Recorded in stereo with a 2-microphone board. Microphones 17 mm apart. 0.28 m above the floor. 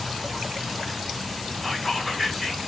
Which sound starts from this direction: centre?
Whispering, at 1.6 s.